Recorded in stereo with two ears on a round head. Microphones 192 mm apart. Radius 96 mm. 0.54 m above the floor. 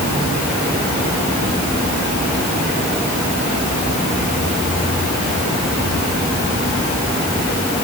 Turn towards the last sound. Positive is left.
No sound to turn to.